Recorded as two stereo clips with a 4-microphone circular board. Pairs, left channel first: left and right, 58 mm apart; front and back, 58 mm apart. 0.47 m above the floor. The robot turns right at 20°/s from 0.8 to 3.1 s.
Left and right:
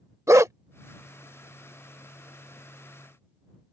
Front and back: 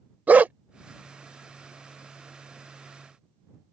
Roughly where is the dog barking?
Behind right.